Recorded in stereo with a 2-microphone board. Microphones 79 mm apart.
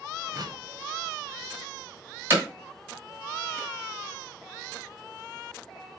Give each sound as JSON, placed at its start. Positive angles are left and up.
{"t": 0.3, "sound": "a whoosh", "side_deg": -55, "distance_m": 0.8}
{"t": 2.3, "sound": "hammering", "side_deg": -25, "distance_m": 1.6}